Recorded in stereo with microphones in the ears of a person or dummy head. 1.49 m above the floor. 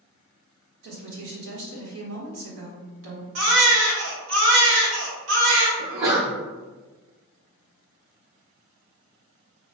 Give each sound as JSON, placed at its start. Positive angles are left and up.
{"t": 0.8, "sound": "a woman speaking", "side_deg": -70, "distance_m": 1.5}
{"t": 3.4, "sound": "a baby crying", "side_deg": -75, "distance_m": 1.3}
{"t": 5.8, "sound": "a sneeze", "side_deg": -75, "distance_m": 1.4}